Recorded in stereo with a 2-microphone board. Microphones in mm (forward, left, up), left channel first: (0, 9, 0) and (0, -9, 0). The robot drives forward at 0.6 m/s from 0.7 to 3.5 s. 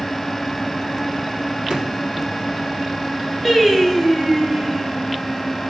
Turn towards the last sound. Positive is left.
turn(degrees=-10)  # may be behind; listen again after turning